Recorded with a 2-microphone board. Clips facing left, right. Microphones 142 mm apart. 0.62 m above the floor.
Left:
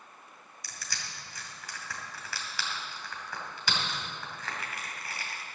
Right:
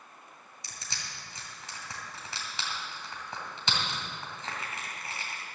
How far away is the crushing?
About 2.5 m.